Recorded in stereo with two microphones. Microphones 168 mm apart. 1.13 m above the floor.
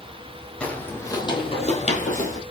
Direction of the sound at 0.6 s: 5° left (ahead or behind).